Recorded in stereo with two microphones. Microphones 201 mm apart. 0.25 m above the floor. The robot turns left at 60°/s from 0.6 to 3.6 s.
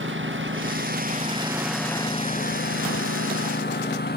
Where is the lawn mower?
75° right (ahead or behind); by 4.2 s 55° left (ahead or behind).